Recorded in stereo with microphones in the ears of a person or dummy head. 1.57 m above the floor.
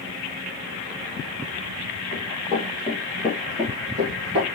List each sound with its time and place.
2.1 s running footsteps: 35° left (ahead or behind), 2.5 m; by 4.5 s 25° right (ahead or behind), 3 m